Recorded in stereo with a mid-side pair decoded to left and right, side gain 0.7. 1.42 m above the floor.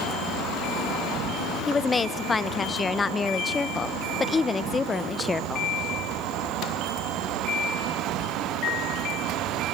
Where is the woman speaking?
20° left, 1.1 m.